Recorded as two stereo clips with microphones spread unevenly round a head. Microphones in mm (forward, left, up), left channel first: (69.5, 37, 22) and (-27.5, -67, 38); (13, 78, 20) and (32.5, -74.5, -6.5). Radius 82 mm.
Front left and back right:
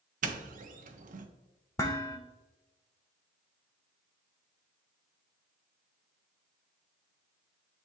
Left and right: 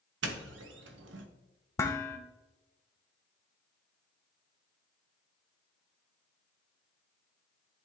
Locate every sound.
0.2 s a doorbell: 100° right, 0.8 m
1.8 s dishes clattering: 115° left, 0.6 m